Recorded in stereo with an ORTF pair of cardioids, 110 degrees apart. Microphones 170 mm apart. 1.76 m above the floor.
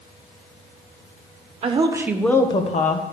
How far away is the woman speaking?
About 1.5 m.